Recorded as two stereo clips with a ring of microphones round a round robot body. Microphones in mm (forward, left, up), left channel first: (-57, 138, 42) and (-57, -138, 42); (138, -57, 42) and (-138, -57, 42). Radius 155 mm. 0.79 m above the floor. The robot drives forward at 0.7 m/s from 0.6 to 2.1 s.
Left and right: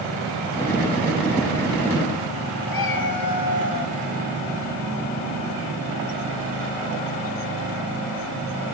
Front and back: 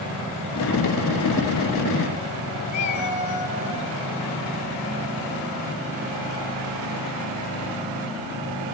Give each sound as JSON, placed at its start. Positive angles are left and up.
{"t": 2.7, "sound": "a cat meowing", "azimuth_deg": 70, "distance_m": 3.5}